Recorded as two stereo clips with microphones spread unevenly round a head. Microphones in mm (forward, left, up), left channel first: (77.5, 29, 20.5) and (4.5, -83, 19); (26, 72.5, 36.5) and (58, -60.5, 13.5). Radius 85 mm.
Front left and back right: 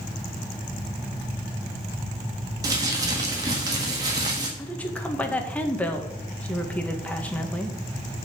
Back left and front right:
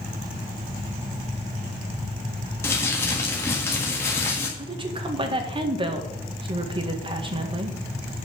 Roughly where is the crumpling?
Behind.